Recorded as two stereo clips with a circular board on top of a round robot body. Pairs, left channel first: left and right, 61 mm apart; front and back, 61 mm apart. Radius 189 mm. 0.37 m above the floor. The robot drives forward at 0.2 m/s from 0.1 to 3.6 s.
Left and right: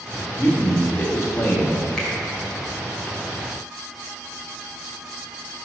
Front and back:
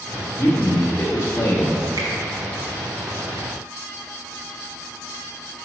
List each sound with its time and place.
0.4 s a man speaking: 40° left, 1.3 m; by 1.9 s 55° left, 1.2 m
2.0 s a finger snap: 170° left, 2.0 m